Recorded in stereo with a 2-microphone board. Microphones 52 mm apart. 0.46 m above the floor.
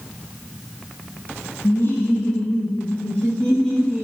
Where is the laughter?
55° left (ahead or behind), 2 m; by 4.0 s 5° left (ahead or behind), 2.5 m.